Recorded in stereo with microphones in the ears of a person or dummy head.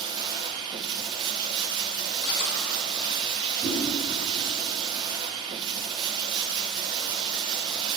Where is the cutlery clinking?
55° left (ahead or behind), 3 m.